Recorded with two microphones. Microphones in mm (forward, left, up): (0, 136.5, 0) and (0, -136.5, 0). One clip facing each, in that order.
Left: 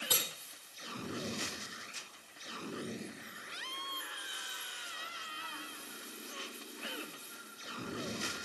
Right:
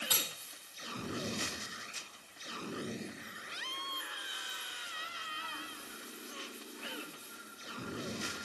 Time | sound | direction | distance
0.1 | cutlery clinking | 65° left (ahead or behind) | 4.5 m